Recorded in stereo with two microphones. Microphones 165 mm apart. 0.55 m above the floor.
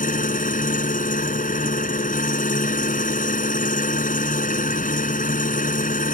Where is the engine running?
55° left (ahead or behind).